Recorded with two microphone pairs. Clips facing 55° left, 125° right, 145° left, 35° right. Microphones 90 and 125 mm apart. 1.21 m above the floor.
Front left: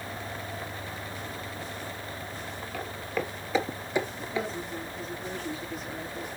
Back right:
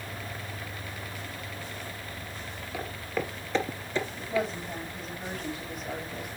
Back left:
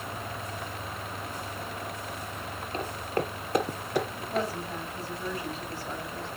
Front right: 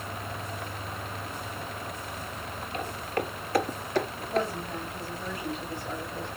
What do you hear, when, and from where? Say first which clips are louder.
2.7 s footsteps: even, back left 1 dB; 160° left, 1.4 m; by 4.5 s 55° left, 1.3 m
4.2 s a woman speaking: back right 2 dB, front right 1 dB; 125° right, 7.5 m